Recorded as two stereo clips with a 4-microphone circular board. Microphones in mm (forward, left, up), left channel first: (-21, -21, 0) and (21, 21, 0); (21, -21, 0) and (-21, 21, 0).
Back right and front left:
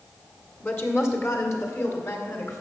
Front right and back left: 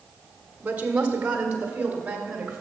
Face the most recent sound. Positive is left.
turn(degrees=-150)